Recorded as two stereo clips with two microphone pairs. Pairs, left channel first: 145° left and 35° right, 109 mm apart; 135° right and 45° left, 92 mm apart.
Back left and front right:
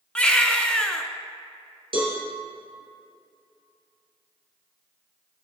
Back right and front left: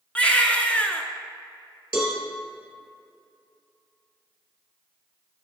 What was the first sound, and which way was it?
A baby crying, 170° right.